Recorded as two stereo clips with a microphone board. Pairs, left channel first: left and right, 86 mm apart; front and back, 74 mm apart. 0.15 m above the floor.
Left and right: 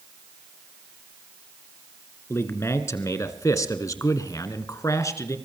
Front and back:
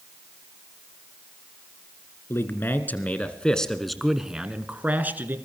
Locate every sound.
2.3 s a man speaking: 40° left, 1.7 m; by 5.4 s 130° left, 1.7 m